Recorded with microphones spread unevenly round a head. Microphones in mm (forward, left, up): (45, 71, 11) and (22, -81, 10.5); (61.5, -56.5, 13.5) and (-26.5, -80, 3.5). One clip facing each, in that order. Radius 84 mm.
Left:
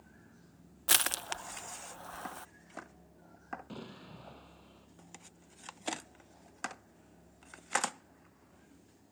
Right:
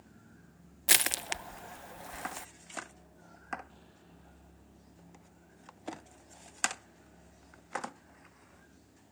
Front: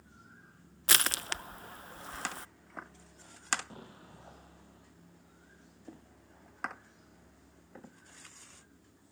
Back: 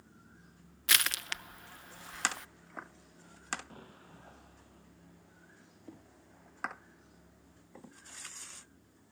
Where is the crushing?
30° right.